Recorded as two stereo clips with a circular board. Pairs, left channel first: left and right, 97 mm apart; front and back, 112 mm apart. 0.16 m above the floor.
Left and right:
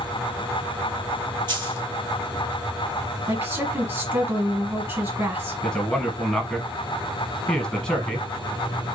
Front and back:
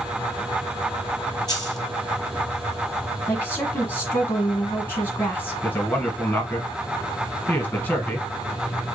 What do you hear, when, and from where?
1.5 s a dropped coin: 55° right, 1.1 m
3.3 s a woman speaking: 50° right, 1.5 m
5.6 s a man speaking: 25° left, 1.2 m